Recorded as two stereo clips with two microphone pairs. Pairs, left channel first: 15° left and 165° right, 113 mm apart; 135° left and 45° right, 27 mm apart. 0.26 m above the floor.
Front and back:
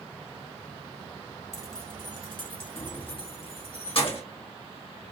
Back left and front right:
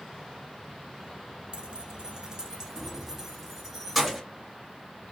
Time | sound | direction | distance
1.5 | keys jangling | 35° right | 0.9 m